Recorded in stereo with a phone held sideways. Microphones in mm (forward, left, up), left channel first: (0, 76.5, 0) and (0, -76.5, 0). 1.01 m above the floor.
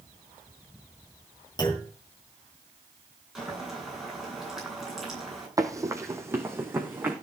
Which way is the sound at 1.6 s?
30° left (ahead or behind).